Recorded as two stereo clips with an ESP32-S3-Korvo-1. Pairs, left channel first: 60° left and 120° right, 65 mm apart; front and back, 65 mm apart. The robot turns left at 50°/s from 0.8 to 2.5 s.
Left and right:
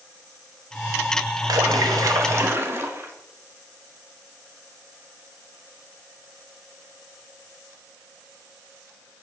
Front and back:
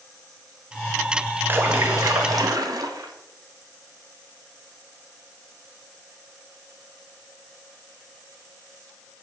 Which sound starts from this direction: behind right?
A splash, at 1.5 s.